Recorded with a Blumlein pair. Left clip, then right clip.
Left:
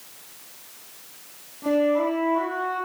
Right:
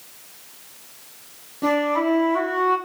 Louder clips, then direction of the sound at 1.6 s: Right 1 dB; 60° right.